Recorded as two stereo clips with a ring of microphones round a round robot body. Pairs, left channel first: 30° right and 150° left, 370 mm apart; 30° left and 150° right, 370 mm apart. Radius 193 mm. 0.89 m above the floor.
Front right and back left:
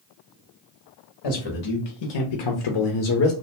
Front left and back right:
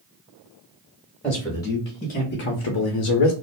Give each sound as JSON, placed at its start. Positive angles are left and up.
{"t": 1.2, "sound": "a man speaking", "azimuth_deg": -60, "distance_m": 1.2}